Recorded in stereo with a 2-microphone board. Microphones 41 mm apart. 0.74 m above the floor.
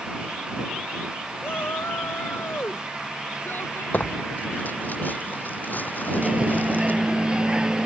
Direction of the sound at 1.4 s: 65° left (ahead or behind).